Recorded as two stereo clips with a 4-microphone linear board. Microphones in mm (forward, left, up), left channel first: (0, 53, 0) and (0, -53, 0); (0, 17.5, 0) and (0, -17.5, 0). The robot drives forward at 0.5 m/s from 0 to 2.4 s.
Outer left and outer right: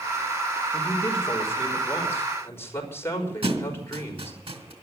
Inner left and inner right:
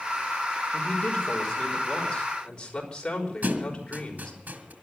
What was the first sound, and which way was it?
A man speaking, 30° left (ahead or behind).